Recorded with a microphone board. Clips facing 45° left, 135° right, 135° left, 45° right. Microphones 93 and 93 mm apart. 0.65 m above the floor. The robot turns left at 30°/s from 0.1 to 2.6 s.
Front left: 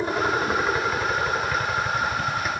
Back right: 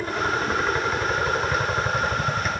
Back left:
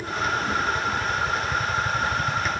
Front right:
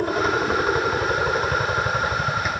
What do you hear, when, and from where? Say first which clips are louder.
0.0 s a helicopter: front left 2 dB, front right 5 dB; 25° right; by 2.6 s 100° right